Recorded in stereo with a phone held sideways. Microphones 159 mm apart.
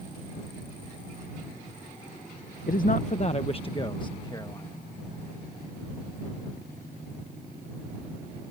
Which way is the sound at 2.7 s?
70° left (ahead or behind).